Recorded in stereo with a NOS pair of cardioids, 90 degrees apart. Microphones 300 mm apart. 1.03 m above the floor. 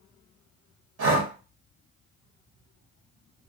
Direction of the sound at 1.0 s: 55° right.